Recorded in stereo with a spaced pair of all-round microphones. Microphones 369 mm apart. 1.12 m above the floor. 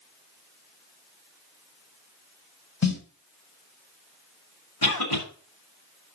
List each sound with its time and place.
2.8 s a snare drum: 45° left (ahead or behind), 1.4 m
4.8 s a cough: 80° left, 2.5 m